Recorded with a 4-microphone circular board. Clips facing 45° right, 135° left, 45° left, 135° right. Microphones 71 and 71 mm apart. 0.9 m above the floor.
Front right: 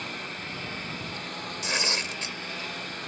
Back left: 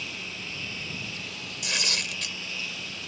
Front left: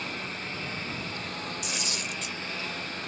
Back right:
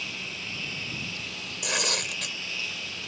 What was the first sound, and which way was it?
A lawn mower, 5° right.